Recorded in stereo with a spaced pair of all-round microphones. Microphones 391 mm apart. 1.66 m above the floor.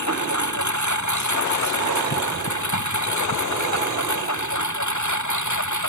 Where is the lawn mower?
40° left (ahead or behind); by 5.9 s 45° left (ahead or behind).